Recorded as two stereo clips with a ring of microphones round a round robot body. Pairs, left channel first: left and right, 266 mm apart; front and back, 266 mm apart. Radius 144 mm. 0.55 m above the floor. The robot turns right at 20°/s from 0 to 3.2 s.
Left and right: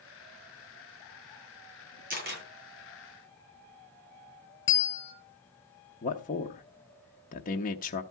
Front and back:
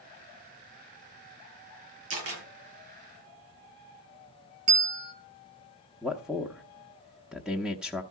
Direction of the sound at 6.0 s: 95° left.